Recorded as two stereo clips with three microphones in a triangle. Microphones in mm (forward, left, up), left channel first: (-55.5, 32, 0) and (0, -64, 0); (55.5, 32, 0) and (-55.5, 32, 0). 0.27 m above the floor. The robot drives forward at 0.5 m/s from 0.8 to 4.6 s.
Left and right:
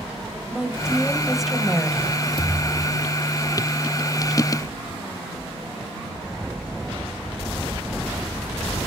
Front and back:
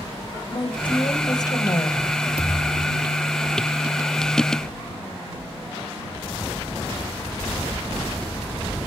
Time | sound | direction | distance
0.5 | a woman speaking | 20° left | 1.9 m
2.4 | a thud | 165° left | 3.5 m